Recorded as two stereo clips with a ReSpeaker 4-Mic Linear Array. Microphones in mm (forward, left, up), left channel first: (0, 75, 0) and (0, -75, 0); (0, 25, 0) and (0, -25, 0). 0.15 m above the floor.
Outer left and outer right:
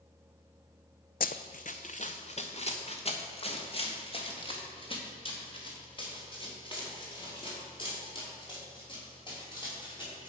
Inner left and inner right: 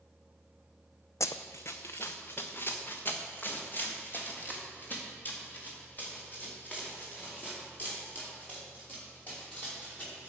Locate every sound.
1.2 s running footsteps: 75° left (ahead or behind), 0.5 m; by 10.3 s 30° left (ahead or behind), 7 m